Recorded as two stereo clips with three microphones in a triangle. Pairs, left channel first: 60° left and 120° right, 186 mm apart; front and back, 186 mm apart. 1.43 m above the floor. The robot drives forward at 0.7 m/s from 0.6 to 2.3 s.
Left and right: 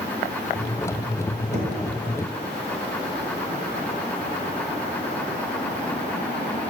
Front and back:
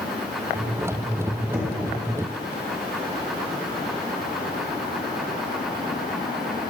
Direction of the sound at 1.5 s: 100° right.